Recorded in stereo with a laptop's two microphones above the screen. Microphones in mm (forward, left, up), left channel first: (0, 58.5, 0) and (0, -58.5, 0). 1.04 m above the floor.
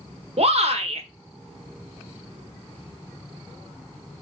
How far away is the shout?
About 1.0 m.